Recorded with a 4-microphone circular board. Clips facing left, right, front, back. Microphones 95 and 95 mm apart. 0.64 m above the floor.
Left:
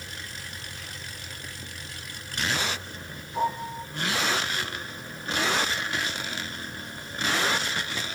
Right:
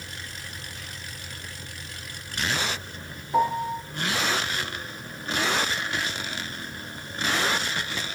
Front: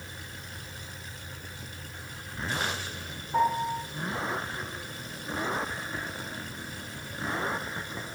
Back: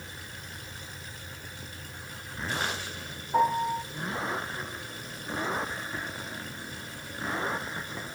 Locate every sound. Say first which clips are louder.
3.3 s a piano: right 5 dB, back 1 dB; 105° right, 7.5 m